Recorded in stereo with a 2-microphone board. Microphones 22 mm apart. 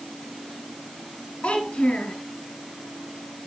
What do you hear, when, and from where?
1.4 s a child speaking: 65° left (ahead or behind), 2 m